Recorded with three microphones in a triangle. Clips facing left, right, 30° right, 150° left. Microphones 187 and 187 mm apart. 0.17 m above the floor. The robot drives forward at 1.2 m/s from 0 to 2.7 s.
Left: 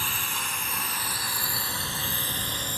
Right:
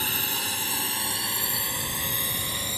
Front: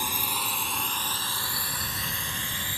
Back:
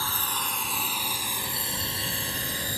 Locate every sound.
0.0 s a drone: 95° right; by 2.8 s 170° right